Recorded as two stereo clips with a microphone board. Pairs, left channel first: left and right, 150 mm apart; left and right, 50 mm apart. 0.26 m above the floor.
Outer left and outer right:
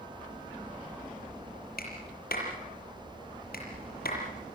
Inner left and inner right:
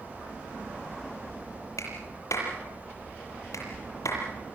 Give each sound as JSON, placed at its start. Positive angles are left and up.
{"t": 1.8, "sound": "a clap", "side_deg": 80, "distance_m": 6.5}